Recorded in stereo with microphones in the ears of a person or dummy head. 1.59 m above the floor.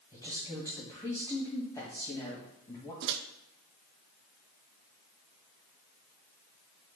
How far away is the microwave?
About 0.6 m.